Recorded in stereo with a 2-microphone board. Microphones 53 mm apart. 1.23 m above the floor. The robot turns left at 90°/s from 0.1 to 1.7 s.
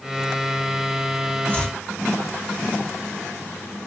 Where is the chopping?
30° left (ahead or behind), 2.5 m; by 1.8 s 10° left (ahead or behind), 2.5 m.